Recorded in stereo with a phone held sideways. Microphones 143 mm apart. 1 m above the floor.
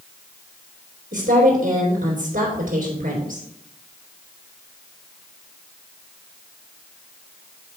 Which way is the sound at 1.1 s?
75° right (ahead or behind).